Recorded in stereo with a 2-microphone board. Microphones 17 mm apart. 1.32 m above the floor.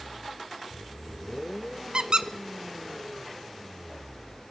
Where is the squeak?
50° right (ahead or behind), 0.8 m.